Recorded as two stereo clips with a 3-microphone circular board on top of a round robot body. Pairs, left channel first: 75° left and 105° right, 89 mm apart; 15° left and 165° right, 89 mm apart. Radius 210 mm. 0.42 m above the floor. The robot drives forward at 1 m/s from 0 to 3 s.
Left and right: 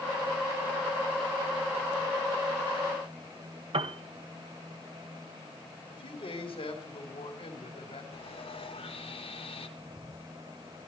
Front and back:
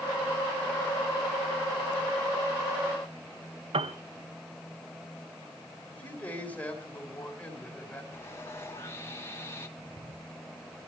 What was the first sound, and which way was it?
A piano, 140° right.